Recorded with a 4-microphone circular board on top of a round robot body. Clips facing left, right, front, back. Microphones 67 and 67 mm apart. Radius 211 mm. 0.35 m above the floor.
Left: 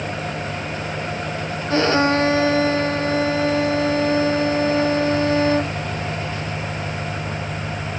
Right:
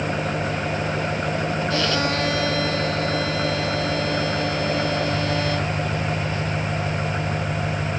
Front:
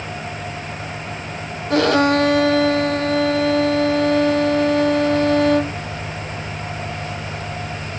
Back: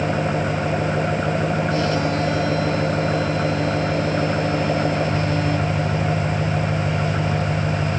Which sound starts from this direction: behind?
An engine running, at 0.0 s.